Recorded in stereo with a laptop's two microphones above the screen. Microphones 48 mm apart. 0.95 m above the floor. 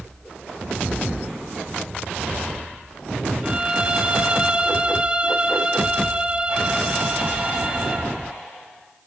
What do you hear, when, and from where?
3.4 s a violin: 25° right (ahead or behind), 1.6 m